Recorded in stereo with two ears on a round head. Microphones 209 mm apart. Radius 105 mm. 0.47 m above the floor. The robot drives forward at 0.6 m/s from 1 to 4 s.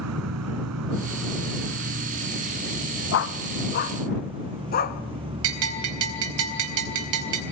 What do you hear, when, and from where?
0.0 s an insect: 75° right (ahead or behind), 0.9 m; by 7.5 s 25° right (ahead or behind), 2 m
3.1 s a dog barking: 60° left (ahead or behind), 1.1 m; by 5.0 s 40° left (ahead or behind), 1.5 m
5.4 s a bell: 65° right (ahead or behind), 3.5 m